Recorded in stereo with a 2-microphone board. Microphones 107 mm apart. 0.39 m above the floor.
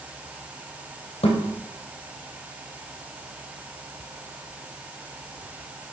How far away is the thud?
About 2.5 m.